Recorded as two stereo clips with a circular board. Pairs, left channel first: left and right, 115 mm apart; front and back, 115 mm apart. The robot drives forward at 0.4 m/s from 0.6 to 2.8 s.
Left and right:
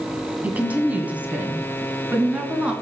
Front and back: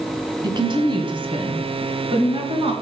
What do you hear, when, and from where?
0.4 s a woman speaking: 160° right, 1.7 m; by 2.7 s 170° right, 2.5 m